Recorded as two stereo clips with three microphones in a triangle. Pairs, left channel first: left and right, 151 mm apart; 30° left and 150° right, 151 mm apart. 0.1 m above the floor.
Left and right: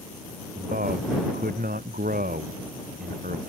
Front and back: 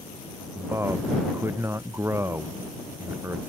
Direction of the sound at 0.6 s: 75° right.